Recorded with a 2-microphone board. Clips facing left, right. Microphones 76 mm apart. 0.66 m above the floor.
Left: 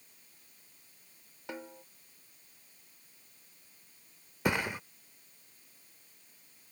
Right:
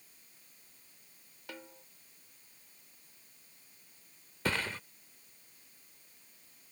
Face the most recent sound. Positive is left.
turn(degrees=15)  # may be behind; listen again after turning